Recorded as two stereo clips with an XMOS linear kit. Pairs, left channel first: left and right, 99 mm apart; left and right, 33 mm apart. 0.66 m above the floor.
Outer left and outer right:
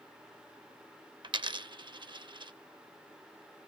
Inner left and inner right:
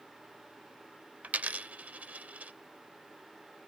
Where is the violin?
I don't hear a violin.